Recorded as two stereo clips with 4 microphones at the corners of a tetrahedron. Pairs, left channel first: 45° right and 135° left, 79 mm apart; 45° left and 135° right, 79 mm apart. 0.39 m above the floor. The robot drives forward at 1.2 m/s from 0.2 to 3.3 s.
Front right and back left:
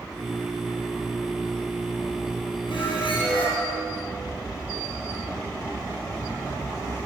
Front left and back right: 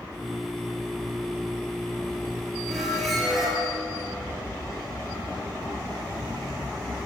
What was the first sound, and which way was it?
A squeak, 40° right.